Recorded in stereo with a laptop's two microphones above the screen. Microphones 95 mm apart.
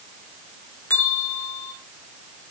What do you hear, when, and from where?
0.9 s a bell: 30° left (ahead or behind), 2.5 m